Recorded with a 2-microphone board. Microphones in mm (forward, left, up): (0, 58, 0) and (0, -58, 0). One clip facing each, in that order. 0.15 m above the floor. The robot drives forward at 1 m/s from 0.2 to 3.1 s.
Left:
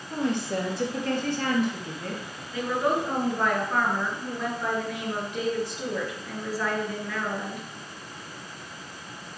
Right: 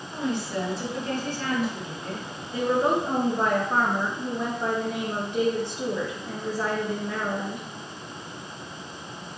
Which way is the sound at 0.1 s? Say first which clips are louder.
Left 2 dB; 60° left (ahead or behind).